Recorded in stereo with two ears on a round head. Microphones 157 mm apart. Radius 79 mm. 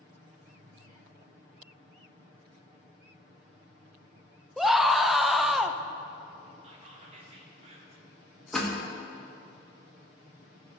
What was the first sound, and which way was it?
A scream, centre (ahead or behind).